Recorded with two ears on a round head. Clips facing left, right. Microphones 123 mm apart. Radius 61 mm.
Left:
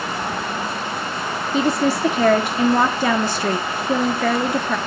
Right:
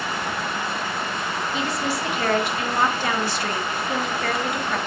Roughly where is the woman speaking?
Left.